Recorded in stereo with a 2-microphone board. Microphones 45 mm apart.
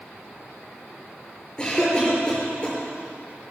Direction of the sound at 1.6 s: 20° left (ahead or behind).